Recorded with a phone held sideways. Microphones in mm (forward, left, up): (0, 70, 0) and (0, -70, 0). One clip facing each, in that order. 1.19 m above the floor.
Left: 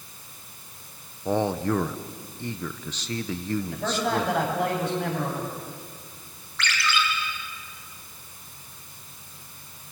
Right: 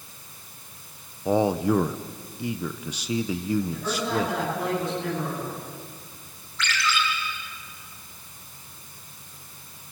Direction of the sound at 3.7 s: 75° left (ahead or behind).